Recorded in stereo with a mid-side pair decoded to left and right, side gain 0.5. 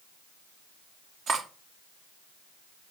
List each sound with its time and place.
1.3 s cutlery clinking: 55° right, 0.8 m